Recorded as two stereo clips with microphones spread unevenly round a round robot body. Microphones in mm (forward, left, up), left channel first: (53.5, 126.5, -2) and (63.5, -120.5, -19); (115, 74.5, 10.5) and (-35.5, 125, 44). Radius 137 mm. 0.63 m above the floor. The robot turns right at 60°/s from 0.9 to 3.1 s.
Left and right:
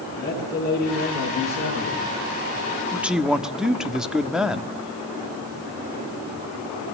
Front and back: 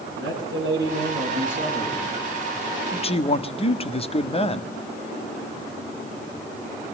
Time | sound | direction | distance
0.1 | a man speaking | 170° left | 9 m
2.9 | a man speaking | 15° right | 1.4 m